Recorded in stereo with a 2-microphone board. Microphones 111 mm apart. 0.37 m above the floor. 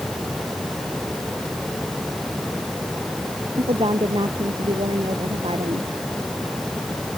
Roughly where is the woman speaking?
Right.